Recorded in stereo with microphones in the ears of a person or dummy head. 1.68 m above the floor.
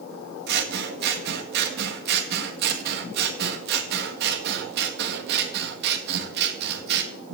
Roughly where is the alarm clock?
No alarm clock in this recording.